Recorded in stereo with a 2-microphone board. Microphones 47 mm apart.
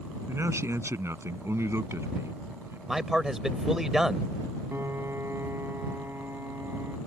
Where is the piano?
65° right (ahead or behind).